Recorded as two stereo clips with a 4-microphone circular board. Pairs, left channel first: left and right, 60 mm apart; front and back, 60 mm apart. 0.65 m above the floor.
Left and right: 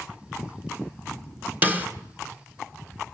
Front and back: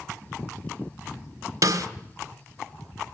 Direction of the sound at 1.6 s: 150° right.